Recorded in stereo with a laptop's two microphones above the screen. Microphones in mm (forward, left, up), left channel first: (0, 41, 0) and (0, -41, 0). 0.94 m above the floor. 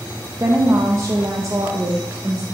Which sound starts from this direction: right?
A woman speaking, at 0.4 s.